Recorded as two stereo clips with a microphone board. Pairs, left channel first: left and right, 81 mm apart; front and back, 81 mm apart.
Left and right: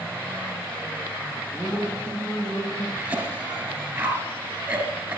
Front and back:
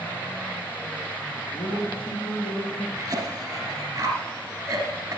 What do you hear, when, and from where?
1.5 s a man speaking: 15° left, 6 m
3.0 s a cough: 135° right, 2 m